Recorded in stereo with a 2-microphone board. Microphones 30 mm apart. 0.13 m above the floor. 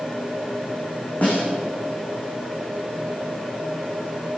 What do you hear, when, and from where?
1.2 s a snare drum: 65° left (ahead or behind), 5.5 m